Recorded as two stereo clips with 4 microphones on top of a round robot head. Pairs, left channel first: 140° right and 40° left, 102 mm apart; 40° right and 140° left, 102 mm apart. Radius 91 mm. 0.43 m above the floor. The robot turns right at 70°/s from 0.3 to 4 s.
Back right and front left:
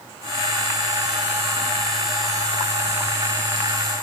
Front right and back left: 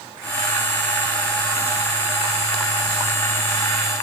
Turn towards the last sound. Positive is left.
No sound to turn to.